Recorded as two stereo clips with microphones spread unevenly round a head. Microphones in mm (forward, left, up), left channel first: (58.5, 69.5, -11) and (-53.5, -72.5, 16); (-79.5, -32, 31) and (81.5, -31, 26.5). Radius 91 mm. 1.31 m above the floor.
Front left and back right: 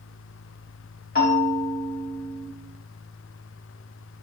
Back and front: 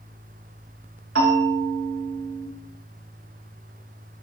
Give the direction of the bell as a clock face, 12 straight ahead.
12 o'clock.